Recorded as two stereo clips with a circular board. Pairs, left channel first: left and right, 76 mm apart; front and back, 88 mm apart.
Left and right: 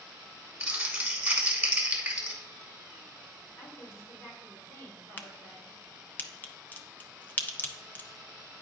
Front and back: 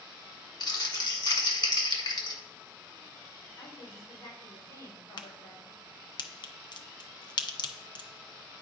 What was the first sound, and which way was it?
Crumpling, 15° right.